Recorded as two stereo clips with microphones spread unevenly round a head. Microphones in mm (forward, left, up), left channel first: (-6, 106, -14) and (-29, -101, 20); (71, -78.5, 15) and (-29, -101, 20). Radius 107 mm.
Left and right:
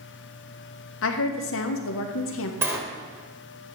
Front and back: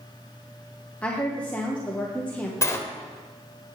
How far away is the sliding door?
About 1.3 m.